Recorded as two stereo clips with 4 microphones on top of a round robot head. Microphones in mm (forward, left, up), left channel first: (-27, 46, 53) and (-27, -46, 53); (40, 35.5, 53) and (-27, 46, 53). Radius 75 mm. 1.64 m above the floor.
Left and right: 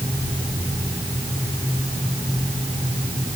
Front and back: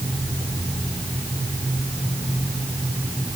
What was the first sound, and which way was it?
Only background noise.